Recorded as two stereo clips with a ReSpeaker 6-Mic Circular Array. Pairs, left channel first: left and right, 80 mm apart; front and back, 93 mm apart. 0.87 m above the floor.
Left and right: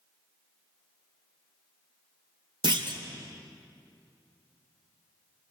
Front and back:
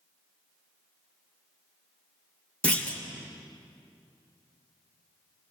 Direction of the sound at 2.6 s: 75° right.